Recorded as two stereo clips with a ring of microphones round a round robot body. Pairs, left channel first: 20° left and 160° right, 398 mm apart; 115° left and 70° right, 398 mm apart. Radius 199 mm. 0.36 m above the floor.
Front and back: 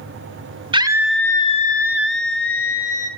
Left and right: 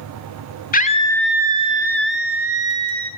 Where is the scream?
145° left, 1.0 m; by 3.1 s 25° right, 2.0 m.